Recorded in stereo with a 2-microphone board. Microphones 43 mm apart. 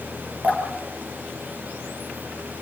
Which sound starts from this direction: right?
Dripping, at 0.4 s.